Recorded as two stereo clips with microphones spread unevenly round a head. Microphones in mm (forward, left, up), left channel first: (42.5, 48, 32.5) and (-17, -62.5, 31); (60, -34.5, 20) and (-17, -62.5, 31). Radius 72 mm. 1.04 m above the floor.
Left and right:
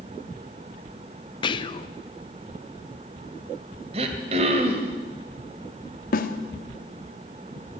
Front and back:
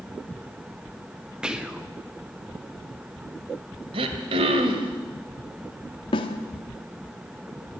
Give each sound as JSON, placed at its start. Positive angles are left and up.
{"t": 1.4, "sound": "whispering", "azimuth_deg": 115, "distance_m": 0.9}
{"t": 3.9, "sound": "throat clearing", "azimuth_deg": -165, "distance_m": 2.0}
{"t": 6.1, "sound": "a snare drum", "azimuth_deg": 55, "distance_m": 1.8}